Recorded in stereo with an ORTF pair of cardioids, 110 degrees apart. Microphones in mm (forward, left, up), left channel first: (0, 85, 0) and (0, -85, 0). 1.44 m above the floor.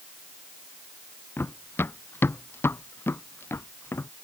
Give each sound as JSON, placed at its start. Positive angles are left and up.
{"t": 1.4, "sound": "running footsteps", "azimuth_deg": 10}